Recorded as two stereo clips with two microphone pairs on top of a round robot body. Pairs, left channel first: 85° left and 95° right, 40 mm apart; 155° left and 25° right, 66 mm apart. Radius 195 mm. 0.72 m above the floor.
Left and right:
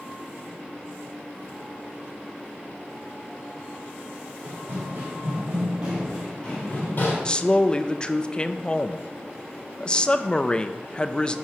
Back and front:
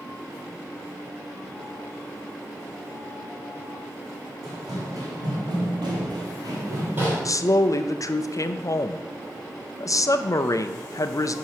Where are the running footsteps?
65° right, 3 m; by 7.2 s 55° left, 1.6 m.